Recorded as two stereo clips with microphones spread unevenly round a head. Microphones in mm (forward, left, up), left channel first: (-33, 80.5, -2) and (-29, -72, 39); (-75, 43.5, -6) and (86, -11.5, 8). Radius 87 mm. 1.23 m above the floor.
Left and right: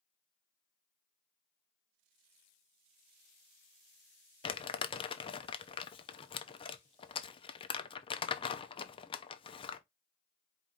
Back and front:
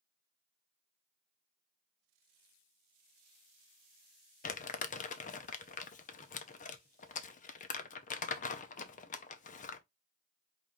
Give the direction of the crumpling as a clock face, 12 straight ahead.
8 o'clock.